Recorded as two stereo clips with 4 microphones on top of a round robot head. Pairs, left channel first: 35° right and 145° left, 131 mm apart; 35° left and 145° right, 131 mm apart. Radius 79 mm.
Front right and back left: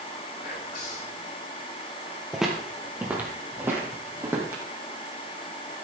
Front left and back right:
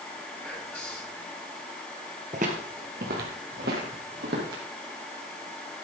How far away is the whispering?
About 7.5 m.